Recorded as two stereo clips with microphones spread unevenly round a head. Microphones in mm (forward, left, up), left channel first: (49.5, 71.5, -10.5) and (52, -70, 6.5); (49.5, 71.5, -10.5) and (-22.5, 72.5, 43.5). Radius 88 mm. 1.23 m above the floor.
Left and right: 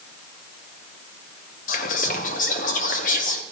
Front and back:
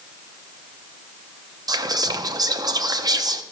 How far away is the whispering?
About 0.9 m.